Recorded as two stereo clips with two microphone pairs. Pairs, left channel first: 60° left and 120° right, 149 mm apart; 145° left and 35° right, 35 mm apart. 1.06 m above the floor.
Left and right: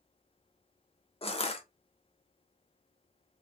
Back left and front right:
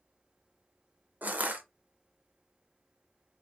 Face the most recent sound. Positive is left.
turn(degrees=5)